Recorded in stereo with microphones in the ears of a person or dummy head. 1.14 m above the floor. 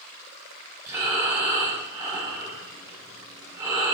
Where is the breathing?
15° right (ahead or behind), 2 m.